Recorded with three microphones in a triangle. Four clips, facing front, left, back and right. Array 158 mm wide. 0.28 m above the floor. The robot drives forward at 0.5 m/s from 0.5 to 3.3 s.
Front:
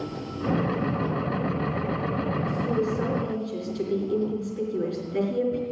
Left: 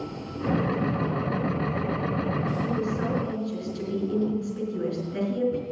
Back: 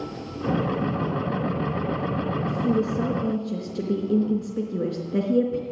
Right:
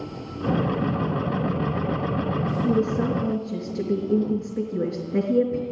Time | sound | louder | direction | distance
2.6 | a woman speaking | right 5 dB, back 3 dB | 145° right | 4 m